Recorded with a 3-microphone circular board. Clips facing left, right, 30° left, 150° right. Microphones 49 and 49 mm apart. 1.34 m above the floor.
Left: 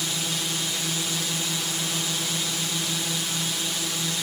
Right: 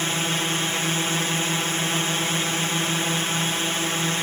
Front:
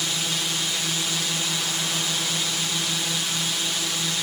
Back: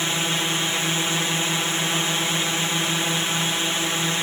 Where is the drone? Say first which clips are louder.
Right 5 dB, back 4 dB; 110° right.